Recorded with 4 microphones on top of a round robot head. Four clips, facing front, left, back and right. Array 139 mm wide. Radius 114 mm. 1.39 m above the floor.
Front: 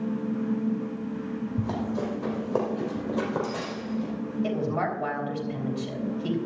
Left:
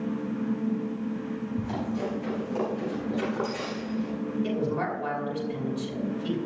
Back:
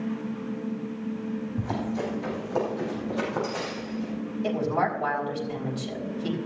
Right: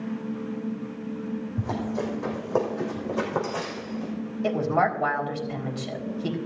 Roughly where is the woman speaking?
Right.